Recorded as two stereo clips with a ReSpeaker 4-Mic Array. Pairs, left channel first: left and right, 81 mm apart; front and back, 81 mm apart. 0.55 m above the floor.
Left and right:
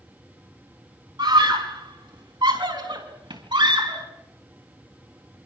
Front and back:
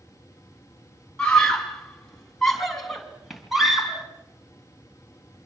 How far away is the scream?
About 4.5 m.